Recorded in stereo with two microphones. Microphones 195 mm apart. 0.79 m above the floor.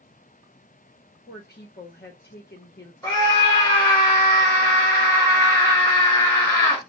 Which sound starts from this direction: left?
A woman speaking, at 1.3 s.